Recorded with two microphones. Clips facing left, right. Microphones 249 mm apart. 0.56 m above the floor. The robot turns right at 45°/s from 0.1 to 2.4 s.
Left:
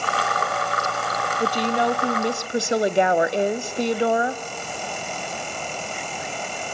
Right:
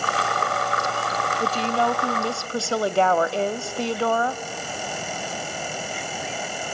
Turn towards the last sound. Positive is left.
turn(degrees=20)  # may be behind; listen again after turning